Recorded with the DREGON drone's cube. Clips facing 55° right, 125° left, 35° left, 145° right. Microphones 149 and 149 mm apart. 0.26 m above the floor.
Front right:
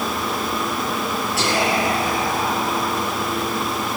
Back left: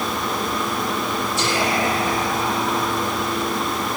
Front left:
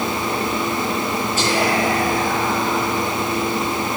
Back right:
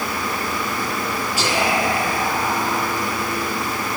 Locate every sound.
1.4 s whispering: 65° right, 8 m